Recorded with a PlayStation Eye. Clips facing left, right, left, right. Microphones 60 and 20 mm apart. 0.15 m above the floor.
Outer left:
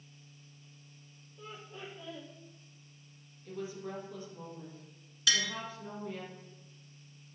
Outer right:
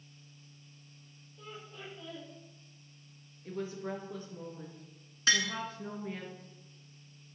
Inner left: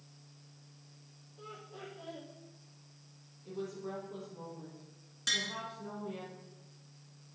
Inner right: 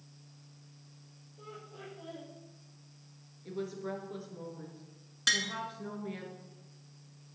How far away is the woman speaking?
About 3 m.